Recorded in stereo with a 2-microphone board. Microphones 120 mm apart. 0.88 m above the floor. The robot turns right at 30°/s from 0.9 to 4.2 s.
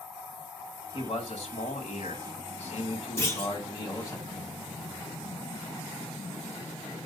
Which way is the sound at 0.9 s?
60° left.